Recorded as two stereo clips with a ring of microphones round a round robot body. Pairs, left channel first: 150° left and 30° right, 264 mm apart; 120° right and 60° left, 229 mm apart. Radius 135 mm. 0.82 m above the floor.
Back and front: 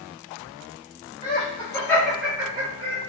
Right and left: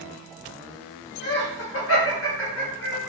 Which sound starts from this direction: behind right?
Laughter, at 1.2 s.